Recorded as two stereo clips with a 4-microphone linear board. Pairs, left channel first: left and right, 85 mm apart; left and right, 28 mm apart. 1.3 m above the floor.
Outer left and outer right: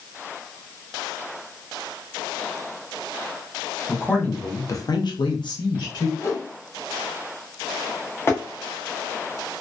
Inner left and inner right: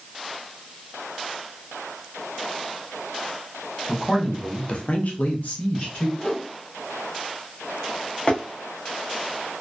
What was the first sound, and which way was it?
A man speaking, 10° left (ahead or behind).